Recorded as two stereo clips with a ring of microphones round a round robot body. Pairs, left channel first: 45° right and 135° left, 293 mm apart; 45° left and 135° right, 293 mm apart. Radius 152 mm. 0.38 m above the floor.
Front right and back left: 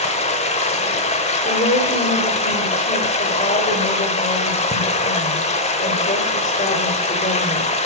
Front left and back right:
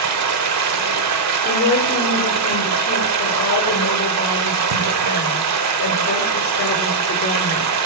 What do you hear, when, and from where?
0.0 s running water: 110° right, 0.8 m
1.4 s a woman speaking: 10° left, 1.1 m